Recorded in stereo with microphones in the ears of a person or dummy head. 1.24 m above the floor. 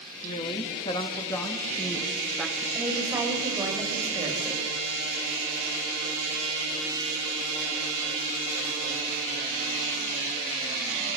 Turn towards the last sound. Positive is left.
turn(degrees=-20)  # may be behind; listen again after turning